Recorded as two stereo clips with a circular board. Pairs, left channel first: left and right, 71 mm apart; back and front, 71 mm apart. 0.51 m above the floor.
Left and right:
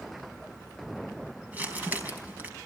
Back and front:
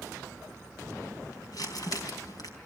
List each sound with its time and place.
1.5 s crumpling: 155° right, 4 m